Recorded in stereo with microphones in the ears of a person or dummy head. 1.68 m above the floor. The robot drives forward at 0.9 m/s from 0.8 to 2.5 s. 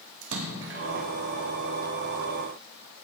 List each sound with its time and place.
0.2 s a splash: 65° right (ahead or behind), 1.3 m; by 0.8 s 60° right (ahead or behind), 1.3 m